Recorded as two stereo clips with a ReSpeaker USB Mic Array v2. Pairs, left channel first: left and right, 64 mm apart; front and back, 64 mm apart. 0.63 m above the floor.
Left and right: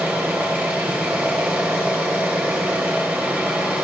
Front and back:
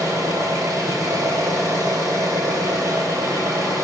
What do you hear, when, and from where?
0.0 s an engine running: 155° right, 2.5 m